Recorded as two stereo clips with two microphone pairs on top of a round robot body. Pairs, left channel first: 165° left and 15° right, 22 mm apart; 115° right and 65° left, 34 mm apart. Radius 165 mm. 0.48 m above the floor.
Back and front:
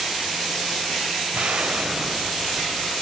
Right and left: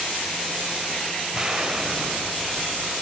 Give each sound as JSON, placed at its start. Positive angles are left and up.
{"t": 1.3, "sound": "an explosion", "azimuth_deg": -5, "distance_m": 3.0}